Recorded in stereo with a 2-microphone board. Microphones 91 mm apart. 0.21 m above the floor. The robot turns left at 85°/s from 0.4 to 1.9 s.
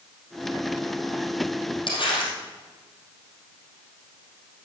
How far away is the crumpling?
About 4 m.